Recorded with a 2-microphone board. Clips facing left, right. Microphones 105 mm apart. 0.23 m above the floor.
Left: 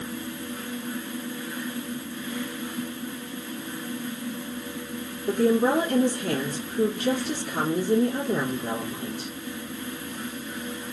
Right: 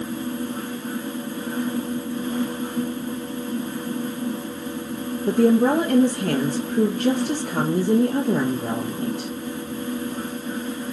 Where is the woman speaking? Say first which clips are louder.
Right 4 dB; 75° right (ahead or behind), 3.5 m.